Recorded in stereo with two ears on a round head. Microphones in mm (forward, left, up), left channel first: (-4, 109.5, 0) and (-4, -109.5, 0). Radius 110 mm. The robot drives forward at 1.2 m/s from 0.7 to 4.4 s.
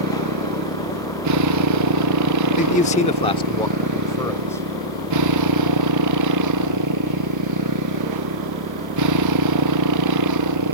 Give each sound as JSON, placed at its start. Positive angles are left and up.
{"t": 0.0, "sound": "a motorcycle", "side_deg": -80}
{"t": 2.6, "sound": "a man speaking", "side_deg": 30}